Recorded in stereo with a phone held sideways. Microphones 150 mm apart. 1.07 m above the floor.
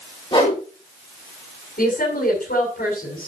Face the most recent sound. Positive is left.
turn(degrees=75)  # may be behind; listen again after turning